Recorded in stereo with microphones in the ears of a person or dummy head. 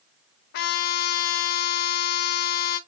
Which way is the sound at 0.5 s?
60° left (ahead or behind).